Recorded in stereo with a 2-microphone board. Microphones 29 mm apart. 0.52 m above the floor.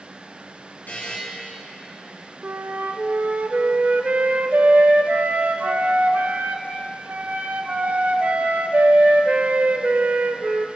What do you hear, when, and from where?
0.9 s a buzzer: 75° left (ahead or behind), 3.5 m
2.4 s a flute: 80° right, 0.6 m